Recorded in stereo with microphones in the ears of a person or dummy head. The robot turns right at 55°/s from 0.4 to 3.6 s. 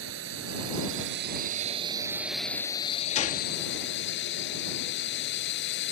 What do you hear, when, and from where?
0.0 s a drone: 110° right; by 5.9 s 65° left
3.1 s a gunshot: 40° left (ahead or behind); by 3.5 s 55° left (ahead or behind)